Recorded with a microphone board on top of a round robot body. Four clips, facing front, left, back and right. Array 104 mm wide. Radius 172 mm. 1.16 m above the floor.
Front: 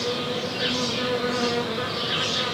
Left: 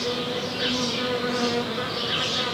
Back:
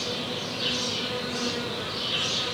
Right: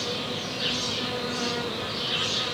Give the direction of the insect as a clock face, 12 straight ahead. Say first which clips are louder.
Left 5 dB, front 6 dB; 10 o'clock.